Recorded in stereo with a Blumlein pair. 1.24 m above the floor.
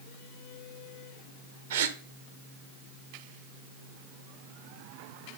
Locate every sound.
1.7 s a gasp: 60° right, 1.2 m